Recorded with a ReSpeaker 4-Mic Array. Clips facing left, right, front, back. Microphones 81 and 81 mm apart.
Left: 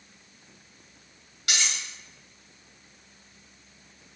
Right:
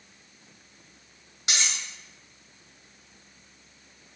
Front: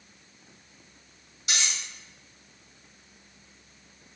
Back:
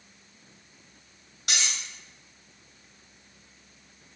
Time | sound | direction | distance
1.5 | cutlery clinking | 155° right | 2 m